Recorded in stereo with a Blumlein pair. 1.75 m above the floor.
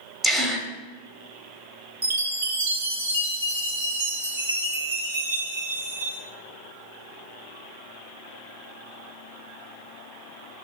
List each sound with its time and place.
0.2 s a gasp: 15° right, 1.0 m
2.0 s a chime: 60° right, 1.2 m